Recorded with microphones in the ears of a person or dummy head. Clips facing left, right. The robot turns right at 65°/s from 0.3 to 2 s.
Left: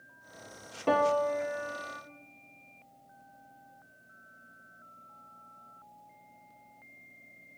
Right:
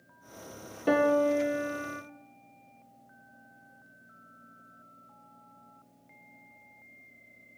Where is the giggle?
No giggle in this recording.